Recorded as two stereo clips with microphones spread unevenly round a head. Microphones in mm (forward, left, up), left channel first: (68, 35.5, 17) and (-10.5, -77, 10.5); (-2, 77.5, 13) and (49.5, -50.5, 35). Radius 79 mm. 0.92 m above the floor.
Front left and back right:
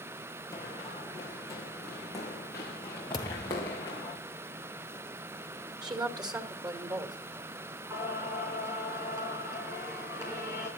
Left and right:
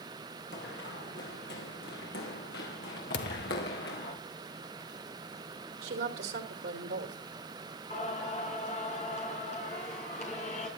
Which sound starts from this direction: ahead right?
A woman speaking, at 5.8 s.